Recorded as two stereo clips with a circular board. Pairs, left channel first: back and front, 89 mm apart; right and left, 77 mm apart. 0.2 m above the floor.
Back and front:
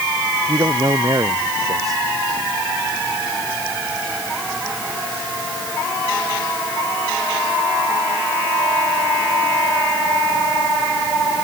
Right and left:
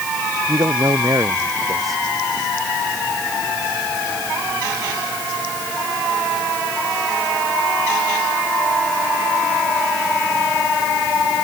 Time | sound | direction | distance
0.5 | a man speaking | 45° left | ?